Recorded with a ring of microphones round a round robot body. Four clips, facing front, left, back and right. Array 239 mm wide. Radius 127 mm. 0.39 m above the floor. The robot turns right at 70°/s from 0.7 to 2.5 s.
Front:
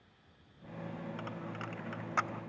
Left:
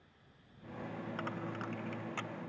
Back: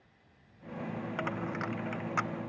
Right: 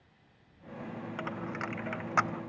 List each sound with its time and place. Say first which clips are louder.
1.2 s a dropped coin: right 5 dB, back 7 dB; 160° right; by 2.4 s 75° right